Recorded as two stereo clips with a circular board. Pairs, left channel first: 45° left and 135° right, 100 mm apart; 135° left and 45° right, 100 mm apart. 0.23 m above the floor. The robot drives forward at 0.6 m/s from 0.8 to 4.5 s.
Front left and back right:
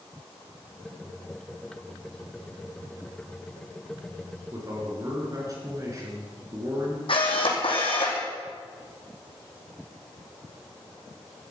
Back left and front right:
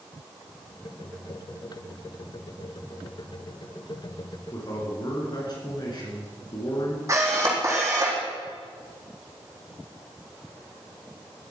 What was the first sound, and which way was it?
A man speaking, 175° left.